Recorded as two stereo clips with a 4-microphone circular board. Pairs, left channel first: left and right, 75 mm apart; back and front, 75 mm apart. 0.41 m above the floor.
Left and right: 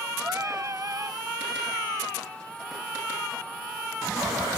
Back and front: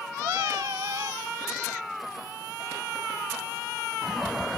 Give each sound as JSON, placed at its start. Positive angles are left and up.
{"t": 0.2, "sound": "singing", "azimuth_deg": -40}